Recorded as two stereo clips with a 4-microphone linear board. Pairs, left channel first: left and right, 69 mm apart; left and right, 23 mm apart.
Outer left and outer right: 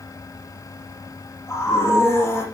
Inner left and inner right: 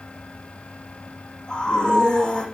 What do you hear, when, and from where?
1.5 s a scream: 40° left (ahead or behind), 8.5 m